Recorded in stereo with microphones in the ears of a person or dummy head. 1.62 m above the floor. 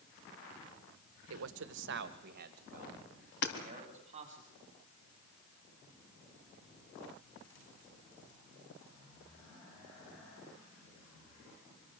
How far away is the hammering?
About 3.5 m.